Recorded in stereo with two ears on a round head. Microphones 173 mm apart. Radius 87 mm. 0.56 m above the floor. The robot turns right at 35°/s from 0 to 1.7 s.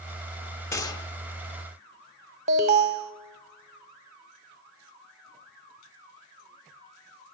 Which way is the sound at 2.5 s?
35° right (ahead or behind).